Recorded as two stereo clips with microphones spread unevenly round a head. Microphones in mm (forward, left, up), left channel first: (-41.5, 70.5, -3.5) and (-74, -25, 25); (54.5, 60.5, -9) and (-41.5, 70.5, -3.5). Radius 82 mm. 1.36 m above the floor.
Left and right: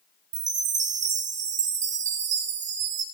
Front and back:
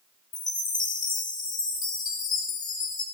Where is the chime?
75° right, 1.5 m.